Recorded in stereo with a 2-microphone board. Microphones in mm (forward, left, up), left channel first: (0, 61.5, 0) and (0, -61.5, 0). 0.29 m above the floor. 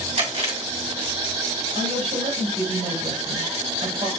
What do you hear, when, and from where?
0.2 s chewing: 60° right (ahead or behind), 2.5 m
1.8 s a woman speaking: 70° right (ahead or behind), 5.5 m